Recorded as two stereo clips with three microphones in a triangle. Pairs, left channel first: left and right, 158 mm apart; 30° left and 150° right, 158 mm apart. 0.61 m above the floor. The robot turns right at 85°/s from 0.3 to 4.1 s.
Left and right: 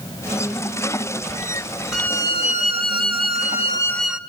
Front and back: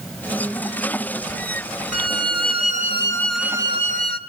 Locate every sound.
1.9 s a violin: straight ahead, 1.1 m; by 4.2 s 175° right, 1.1 m